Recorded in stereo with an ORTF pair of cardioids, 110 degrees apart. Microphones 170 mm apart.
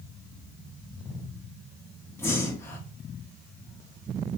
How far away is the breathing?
About 0.8 m.